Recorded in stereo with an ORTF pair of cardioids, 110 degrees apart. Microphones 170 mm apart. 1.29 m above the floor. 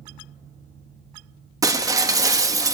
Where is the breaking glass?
20° right, 1.2 m.